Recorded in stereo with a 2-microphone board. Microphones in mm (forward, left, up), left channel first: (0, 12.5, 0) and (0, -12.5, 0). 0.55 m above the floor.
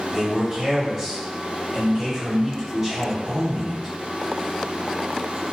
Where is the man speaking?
20° right (ahead or behind), 1.6 m.